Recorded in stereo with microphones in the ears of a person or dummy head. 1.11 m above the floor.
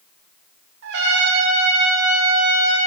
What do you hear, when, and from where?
0.8 s a trumpet: 60° right (ahead or behind), 1.2 m